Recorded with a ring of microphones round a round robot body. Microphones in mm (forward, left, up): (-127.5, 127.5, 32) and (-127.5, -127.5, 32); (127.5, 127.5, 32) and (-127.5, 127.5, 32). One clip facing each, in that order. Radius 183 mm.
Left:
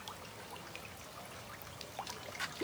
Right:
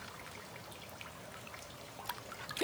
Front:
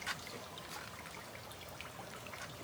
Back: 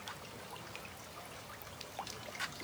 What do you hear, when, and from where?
Only background noise.